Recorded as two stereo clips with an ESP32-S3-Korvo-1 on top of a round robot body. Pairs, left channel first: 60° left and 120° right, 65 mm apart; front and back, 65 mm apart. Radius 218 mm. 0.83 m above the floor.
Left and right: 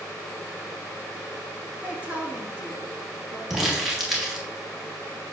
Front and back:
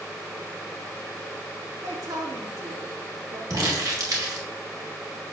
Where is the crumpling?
155° left, 2.5 m.